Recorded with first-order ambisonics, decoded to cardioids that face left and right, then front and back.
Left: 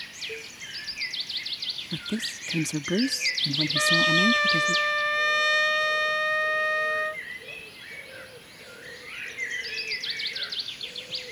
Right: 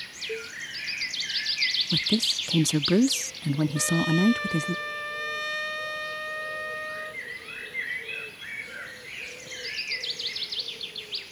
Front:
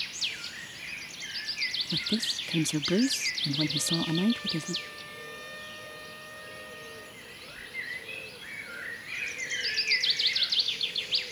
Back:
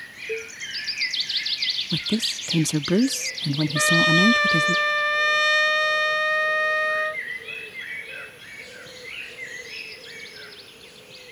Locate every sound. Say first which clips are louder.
0.3 s a cowbell: right 3 dB, back 8 dB; 160° right
1.9 s a woman speaking: right 8 dB, back 4 dB; 140° right
3.8 s a trumpet: left 7 dB, back 12 dB; 155° left